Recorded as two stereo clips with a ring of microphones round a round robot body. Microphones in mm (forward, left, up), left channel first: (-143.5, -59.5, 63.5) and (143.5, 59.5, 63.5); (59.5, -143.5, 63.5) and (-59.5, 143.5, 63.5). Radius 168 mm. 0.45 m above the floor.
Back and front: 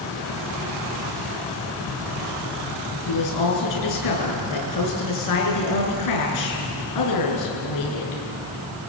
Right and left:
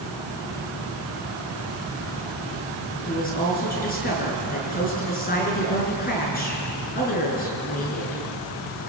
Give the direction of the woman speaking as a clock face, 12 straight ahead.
4 o'clock.